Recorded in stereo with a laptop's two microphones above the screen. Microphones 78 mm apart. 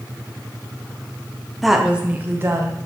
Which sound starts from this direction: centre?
A woman speaking, at 1.6 s.